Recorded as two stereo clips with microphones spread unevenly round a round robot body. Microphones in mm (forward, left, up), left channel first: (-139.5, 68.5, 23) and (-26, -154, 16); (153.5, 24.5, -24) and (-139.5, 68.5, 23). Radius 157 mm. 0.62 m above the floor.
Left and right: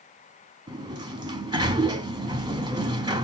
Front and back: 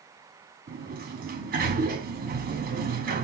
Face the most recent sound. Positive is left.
turn(degrees=-130)